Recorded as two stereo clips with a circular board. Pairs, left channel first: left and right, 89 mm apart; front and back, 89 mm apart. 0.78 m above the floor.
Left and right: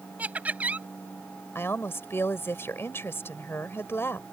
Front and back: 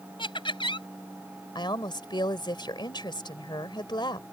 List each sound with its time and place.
0.2 s laughter: 15° right
1.6 s a woman speaking: 30° left